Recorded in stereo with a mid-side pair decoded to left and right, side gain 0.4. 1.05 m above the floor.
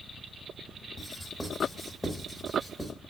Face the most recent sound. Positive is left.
turn(degrees=15)